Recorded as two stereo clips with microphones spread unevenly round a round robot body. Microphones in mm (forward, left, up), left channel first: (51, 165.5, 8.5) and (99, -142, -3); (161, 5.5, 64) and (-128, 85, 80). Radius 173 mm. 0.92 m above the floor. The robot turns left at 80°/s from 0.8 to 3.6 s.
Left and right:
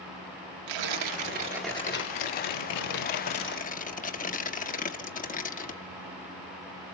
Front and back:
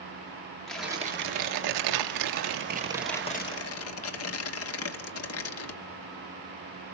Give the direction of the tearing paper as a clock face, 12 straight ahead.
3 o'clock.